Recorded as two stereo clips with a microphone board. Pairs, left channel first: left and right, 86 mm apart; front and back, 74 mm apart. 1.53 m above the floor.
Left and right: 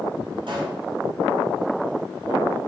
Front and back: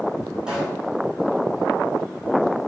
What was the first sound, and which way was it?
A pop, 100° right.